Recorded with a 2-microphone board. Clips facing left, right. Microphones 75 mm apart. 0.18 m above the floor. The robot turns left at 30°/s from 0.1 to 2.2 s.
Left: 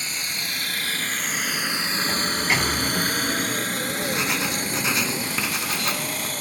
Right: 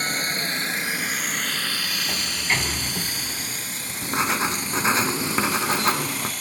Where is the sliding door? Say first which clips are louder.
Left 3 dB; 5° left (ahead or behind).